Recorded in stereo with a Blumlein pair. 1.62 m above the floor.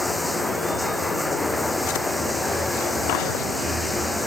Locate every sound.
0.0 s running water: straight ahead